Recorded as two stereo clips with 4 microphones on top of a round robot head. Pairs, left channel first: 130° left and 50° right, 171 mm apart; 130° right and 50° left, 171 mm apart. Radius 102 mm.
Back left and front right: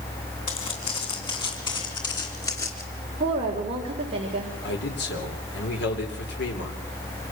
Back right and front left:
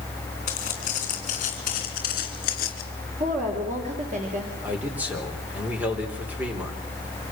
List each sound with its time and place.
0.5 s footsteps: 175° right, 3.5 m; by 2.8 s 160° right, 2.5 m
3.2 s a woman speaking: 5° left, 3.5 m
4.6 s a man speaking: 135° left, 4 m